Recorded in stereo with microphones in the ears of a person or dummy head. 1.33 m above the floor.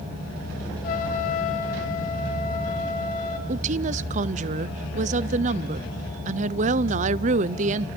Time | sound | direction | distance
0.8 | a trumpet | 45° left (ahead or behind) | 1.8 m
3.5 | a woman speaking | 35° right (ahead or behind) | 0.5 m